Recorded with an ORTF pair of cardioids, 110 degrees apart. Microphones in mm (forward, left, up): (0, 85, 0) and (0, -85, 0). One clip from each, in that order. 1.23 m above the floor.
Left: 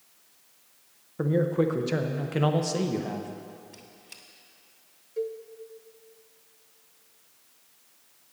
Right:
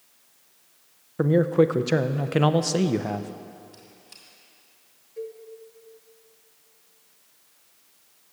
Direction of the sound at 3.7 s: 30° left.